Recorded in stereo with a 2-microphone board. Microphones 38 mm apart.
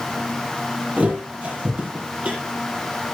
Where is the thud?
40° right (ahead or behind), 7 m.